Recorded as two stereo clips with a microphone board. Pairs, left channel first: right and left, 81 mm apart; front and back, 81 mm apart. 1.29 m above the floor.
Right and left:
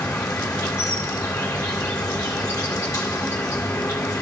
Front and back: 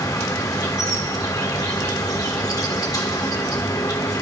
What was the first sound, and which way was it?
An insect, 40° right.